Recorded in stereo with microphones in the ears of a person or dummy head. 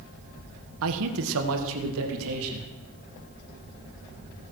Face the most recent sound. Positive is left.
turn(degrees=-75)  # may be behind; listen again after turning